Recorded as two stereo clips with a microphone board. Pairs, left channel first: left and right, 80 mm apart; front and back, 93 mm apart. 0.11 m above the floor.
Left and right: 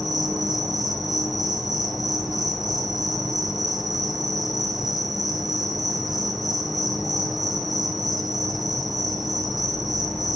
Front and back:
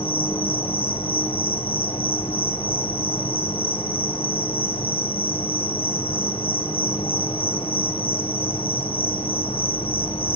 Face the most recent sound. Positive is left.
turn(degrees=0)